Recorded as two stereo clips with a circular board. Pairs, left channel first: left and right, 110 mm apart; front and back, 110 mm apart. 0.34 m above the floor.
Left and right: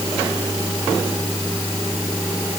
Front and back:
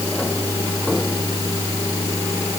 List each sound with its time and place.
Only background noise.